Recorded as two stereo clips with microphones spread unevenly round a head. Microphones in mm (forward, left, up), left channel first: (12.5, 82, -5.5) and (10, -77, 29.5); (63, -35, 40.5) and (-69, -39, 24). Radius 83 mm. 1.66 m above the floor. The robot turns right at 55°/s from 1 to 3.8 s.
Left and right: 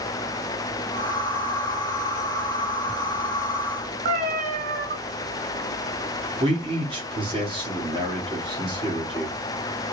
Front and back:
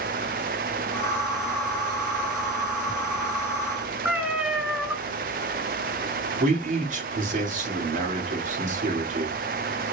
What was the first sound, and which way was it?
A cat meowing, 95° right.